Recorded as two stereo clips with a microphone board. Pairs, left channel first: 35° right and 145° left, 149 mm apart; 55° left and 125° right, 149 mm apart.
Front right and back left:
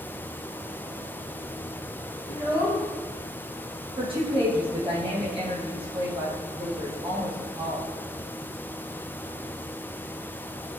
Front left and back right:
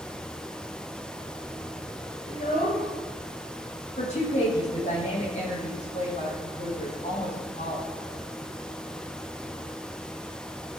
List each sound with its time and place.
2.3 s a child speaking: 85° left, 7 m
4.0 s a woman speaking: 95° left, 5.5 m